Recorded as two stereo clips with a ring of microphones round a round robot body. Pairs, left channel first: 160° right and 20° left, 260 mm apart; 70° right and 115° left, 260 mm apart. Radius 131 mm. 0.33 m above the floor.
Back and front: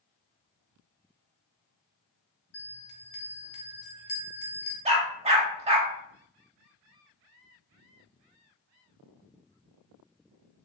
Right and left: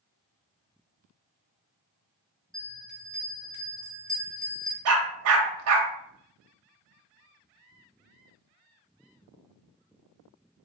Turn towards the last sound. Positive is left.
turn(degrees=90)